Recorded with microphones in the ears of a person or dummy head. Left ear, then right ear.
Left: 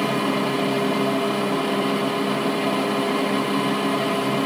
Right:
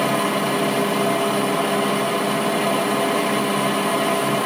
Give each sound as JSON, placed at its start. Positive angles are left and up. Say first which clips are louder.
{"t": 0.0, "sound": "a machine running", "louder": "right 2 dB", "side_deg": -10, "distance_m": 1.8}